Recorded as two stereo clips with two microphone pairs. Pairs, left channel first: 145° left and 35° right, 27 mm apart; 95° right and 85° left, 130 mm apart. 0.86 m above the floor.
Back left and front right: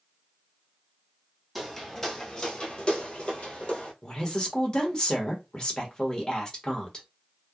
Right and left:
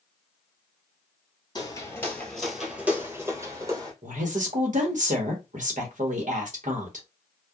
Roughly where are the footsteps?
Behind right.